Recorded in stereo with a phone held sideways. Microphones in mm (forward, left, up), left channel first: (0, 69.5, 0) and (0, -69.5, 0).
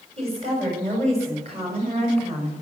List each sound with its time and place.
0.2 s a woman speaking: 45° right (ahead or behind), 7 m